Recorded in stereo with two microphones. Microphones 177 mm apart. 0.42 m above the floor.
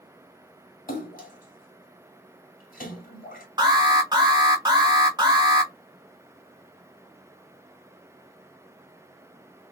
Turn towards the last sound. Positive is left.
turn(degrees=-25)  # may be behind; listen again after turning